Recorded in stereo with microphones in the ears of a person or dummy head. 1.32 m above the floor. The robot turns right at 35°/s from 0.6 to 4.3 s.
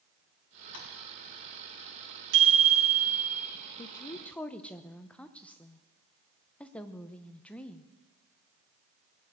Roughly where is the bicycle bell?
Right.